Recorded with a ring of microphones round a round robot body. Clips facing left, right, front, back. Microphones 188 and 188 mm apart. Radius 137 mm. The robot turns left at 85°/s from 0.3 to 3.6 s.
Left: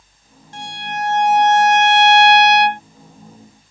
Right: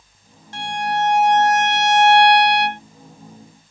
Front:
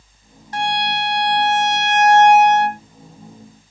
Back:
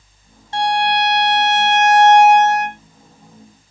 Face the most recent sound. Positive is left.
turn(degrees=-20)